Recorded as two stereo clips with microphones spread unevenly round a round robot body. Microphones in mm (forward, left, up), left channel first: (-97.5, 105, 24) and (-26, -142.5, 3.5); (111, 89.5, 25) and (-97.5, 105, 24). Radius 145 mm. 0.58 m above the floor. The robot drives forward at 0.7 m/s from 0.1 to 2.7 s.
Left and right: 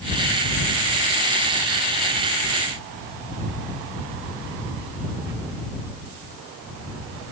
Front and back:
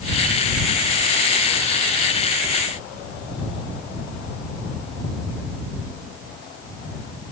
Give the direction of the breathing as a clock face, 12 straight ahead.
No breathing in this recording.